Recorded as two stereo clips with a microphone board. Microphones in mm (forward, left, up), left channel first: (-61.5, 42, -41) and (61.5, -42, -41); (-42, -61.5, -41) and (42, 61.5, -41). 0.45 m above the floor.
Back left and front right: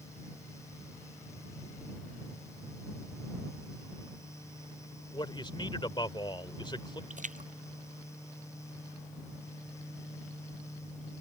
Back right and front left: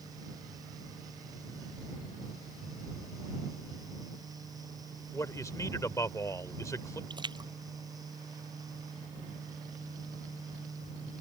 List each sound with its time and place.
5.1 s a man speaking: straight behind
7.1 s a splash: 5° right